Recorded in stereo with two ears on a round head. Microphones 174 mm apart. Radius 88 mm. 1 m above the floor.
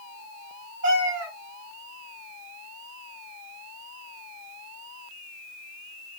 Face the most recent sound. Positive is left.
turn(degrees=-60)  # may be behind; listen again after turning